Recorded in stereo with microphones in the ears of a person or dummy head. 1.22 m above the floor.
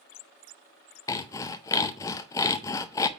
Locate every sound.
1.1 s sawing: 15° left (ahead or behind), 0.5 m